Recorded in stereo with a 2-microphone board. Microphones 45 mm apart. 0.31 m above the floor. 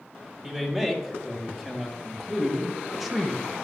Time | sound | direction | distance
0.4 | a man speaking | 10° right (ahead or behind) | 2.5 m